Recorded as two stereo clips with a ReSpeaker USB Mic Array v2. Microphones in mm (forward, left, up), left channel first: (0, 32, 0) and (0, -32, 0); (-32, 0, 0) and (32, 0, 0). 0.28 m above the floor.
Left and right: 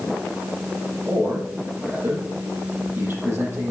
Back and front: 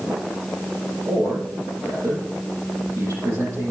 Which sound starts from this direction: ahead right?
A man speaking, at 1.1 s.